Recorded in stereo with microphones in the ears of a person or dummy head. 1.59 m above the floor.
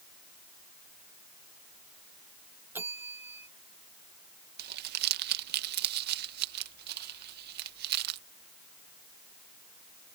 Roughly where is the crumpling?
Right.